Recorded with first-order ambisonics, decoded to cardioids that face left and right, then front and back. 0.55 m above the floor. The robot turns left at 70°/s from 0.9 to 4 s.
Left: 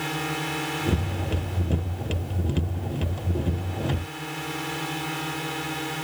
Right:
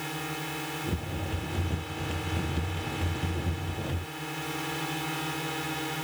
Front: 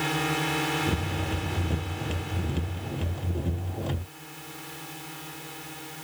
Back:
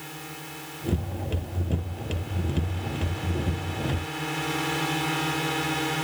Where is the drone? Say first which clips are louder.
Left 6 dB, front 12 dB; 25° left; by 6.0 s 170° left.